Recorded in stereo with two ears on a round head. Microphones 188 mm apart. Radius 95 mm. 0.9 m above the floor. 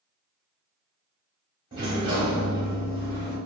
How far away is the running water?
No running water in this recording.